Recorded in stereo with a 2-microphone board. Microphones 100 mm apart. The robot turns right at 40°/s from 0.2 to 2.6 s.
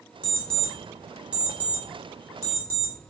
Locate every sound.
0.2 s an alarm clock: 15° left (ahead or behind), 1.0 m; by 2.9 s 25° right (ahead or behind), 1.0 m